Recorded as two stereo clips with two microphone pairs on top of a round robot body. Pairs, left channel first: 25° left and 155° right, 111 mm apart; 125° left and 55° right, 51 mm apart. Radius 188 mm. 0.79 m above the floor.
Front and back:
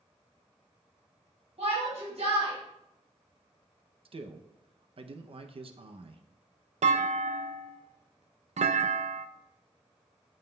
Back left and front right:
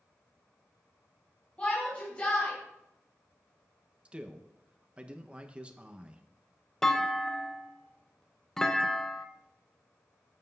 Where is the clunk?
150° right, 0.6 m.